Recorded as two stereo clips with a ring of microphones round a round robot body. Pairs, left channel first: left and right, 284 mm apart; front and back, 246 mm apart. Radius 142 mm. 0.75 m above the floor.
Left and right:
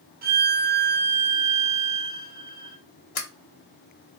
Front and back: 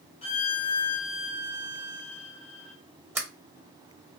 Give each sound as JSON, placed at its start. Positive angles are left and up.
{"t": 0.2, "sound": "a violin", "azimuth_deg": -55, "distance_m": 0.6}
{"t": 3.1, "sound": "a sliding door", "azimuth_deg": 100, "distance_m": 1.1}